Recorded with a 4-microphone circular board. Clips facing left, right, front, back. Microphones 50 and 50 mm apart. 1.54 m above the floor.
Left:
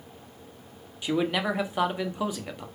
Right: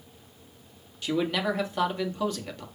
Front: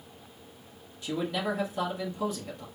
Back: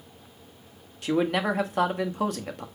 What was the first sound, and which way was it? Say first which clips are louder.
A man speaking: left 1 dB, back 6 dB; 165° left.